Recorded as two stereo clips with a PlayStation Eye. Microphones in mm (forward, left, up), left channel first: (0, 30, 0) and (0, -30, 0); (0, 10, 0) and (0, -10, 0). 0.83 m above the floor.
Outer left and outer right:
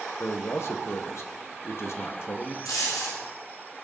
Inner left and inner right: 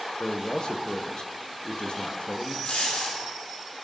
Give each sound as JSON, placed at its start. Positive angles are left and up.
{"t": 0.2, "sound": "a man speaking", "side_deg": 45, "distance_m": 0.9}
{"t": 2.6, "sound": "a dropped coin", "side_deg": 85, "distance_m": 6.0}